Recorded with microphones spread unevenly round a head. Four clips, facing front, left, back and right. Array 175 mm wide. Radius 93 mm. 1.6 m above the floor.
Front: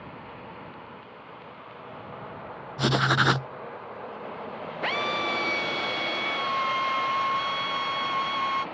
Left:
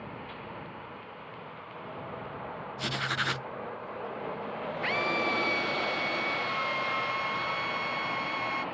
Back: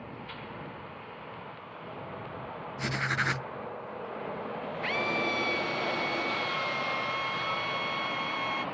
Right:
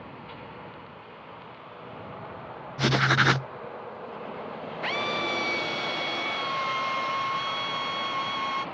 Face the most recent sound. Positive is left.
turn(degrees=-20)